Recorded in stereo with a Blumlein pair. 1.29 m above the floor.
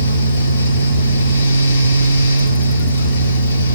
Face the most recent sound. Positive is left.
turn(degrees=60)